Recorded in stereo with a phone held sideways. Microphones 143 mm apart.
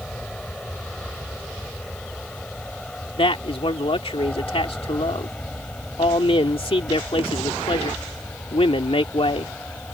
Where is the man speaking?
40° left (ahead or behind).